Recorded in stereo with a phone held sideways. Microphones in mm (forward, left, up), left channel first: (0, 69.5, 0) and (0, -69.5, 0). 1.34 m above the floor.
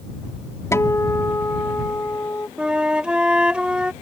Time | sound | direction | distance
0.7 | a guitar | 20° left (ahead or behind) | ?
2.6 | a flute | 5° right (ahead or behind) | ?